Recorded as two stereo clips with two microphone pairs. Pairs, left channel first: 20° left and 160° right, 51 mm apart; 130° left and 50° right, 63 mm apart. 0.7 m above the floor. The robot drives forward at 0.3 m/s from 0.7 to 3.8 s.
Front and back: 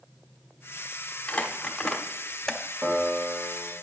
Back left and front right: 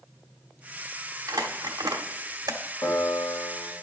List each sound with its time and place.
1.3 s crumpling: 45° right, 1.2 m; by 2.6 s 65° right, 1.0 m
2.8 s a piano: 145° left, 1.7 m; by 3.7 s 155° left, 1.9 m